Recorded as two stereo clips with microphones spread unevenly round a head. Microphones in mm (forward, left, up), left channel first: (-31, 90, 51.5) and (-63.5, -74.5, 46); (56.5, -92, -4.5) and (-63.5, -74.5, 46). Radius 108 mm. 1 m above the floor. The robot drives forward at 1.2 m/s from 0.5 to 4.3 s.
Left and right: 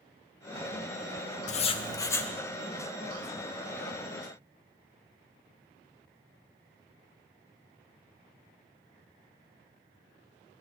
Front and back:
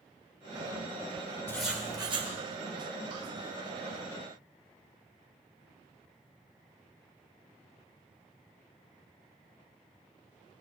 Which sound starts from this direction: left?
Writing, at 1.5 s.